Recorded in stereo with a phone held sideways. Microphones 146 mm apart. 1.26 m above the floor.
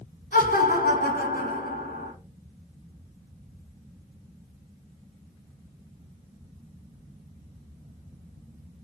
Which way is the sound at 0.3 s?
90° left.